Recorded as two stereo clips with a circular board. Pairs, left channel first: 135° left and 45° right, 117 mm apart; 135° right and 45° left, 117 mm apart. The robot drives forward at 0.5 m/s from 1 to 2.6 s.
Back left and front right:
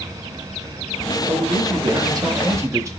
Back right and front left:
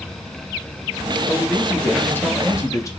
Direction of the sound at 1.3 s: 45° right.